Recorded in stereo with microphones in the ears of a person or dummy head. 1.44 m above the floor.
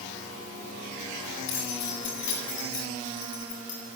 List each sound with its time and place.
1.5 s keys jangling: 70° left (ahead or behind), 8.5 m